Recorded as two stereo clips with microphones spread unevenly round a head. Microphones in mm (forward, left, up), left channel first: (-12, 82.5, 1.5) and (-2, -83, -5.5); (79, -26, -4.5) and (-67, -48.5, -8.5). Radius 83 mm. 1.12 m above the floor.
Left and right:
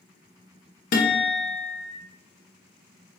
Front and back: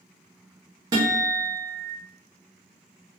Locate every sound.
0.9 s a guitar: 125° left, 0.6 m